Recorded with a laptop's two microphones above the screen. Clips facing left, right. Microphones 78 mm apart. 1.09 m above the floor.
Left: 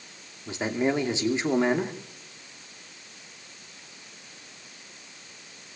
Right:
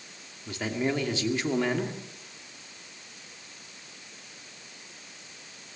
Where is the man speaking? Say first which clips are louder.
Left 3 dB; 20° left (ahead or behind), 2.5 m.